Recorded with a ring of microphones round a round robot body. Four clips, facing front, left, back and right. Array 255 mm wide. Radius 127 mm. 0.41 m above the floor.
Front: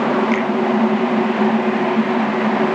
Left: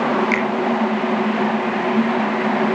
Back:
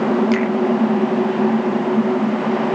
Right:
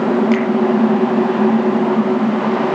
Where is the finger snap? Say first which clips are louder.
Right 5 dB, back 1 dB; 155° left, 5.5 m.